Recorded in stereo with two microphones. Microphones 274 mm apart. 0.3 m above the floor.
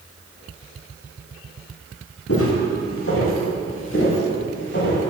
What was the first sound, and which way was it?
Footsteps, 55° left (ahead or behind).